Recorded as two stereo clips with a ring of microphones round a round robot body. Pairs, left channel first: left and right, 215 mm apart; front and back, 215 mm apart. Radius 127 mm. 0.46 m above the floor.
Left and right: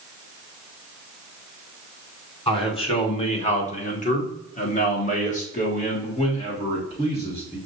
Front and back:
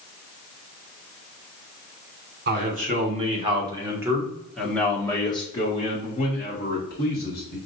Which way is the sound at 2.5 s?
150° left.